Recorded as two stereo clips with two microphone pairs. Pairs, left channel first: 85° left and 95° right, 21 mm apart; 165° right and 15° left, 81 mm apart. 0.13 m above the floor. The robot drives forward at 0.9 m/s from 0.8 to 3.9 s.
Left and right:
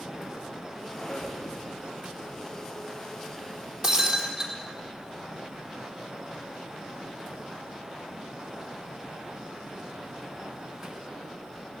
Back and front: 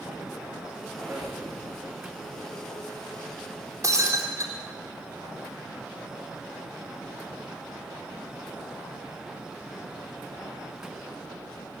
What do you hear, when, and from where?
0.9 s a squeak: 85° left, 6.5 m
3.8 s breaking glass: 25° right, 3.5 m; by 4.5 s 30° right, 3.5 m